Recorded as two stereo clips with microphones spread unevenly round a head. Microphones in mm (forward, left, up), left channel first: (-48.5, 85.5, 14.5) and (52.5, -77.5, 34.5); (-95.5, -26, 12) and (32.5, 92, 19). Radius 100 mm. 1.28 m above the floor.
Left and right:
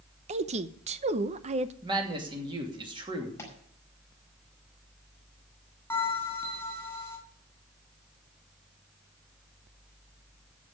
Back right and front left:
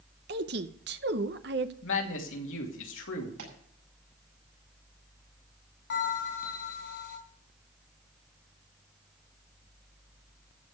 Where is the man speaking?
125° right, 2.5 m.